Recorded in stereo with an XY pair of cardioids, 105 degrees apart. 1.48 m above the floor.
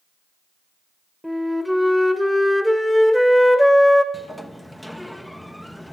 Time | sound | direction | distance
1.2 | a flute | 5° left | 1.4 m
4.1 | a sliding door | 5° left | 0.9 m